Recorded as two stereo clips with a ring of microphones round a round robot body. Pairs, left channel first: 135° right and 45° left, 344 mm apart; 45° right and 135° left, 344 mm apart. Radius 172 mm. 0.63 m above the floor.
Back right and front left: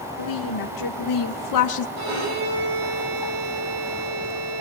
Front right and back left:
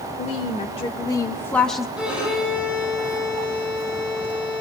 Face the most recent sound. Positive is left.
turn(degrees=50)